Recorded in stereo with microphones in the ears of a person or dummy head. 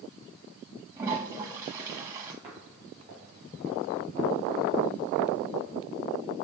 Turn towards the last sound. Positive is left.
turn(degrees=-25)  # may be behind; listen again after turning